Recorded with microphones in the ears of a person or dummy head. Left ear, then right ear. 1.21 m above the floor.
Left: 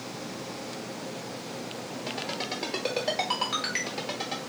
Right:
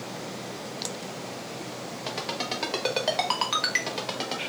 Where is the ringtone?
20° right (ahead or behind), 1.0 m.